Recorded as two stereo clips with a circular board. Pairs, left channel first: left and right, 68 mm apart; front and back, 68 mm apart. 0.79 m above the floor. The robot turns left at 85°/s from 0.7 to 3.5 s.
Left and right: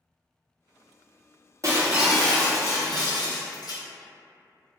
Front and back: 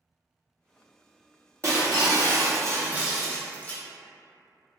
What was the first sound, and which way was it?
Breaking glass, 135° right.